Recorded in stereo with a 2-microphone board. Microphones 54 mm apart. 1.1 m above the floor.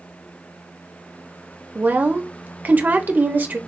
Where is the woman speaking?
35° right (ahead or behind), 0.7 m.